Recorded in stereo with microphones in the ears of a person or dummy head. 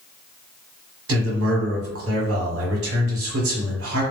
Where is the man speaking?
70° right (ahead or behind), 1.1 m.